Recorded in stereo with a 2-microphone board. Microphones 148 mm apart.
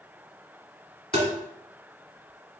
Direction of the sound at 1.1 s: 45° right (ahead or behind).